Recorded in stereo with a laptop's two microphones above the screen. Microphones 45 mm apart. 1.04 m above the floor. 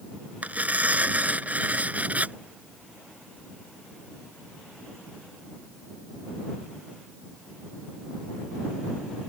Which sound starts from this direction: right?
Tearing paper, at 0.4 s.